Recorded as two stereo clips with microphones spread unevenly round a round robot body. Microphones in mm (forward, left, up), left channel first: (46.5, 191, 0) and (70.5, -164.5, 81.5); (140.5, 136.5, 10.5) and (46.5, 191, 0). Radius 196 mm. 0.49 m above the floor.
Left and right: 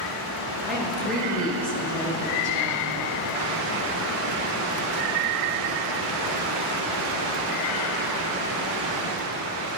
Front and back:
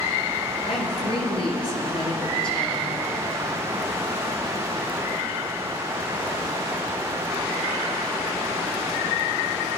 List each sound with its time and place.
0.7 s a woman speaking: 5° left, 8.5 m; by 3.0 s 10° left, 9.5 m